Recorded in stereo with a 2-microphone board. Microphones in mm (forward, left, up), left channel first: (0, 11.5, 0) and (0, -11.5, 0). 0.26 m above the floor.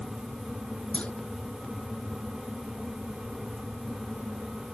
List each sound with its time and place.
0.9 s a clunk: 75° left (ahead or behind)